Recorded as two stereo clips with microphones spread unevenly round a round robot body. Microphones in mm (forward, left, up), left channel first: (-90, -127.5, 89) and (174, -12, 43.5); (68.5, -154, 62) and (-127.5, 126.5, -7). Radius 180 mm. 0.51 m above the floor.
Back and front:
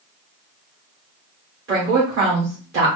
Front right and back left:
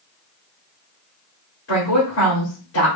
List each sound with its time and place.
1.7 s a woman speaking: 5° left, 1.9 m